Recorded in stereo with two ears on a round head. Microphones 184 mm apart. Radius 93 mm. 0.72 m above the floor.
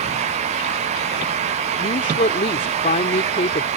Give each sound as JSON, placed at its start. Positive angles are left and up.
{"t": 1.8, "sound": "a woman speaking", "side_deg": 35}